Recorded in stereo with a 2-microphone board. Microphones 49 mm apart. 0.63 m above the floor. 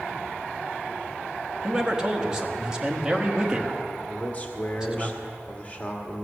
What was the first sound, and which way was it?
A man speaking, 15° right (ahead or behind).